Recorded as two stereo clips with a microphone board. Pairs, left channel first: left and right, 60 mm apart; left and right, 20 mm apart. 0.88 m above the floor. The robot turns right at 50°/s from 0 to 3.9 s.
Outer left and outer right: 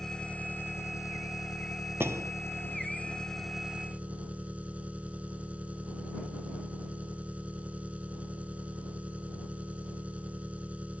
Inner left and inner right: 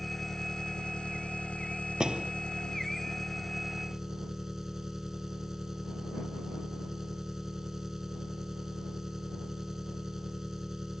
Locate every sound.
0.0 s an engine running: 5° left; by 11.0 s 160° right
2.0 s a door slam: 40° right (ahead or behind); by 2.3 s 55° right (ahead or behind)